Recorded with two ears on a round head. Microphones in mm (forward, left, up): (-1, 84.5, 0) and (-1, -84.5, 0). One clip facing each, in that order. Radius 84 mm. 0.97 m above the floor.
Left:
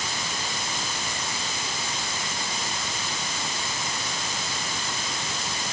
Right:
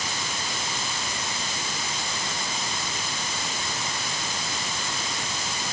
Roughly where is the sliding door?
I don't hear a sliding door.